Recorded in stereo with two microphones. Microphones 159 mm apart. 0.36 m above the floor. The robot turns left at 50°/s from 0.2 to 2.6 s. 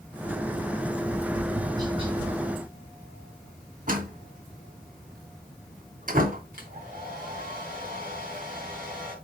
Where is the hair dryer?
65° right (ahead or behind), 3.5 m.